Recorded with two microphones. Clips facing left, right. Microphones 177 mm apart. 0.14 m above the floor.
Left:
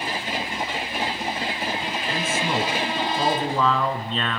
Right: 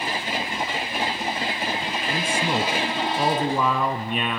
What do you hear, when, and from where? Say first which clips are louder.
2.1 s a man speaking: right 1 dB; 15° right (ahead or behind), 2.0 m